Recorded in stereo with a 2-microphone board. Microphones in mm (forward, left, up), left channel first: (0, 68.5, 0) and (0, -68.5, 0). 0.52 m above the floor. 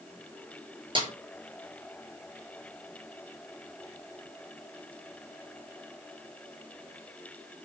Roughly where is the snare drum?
Right.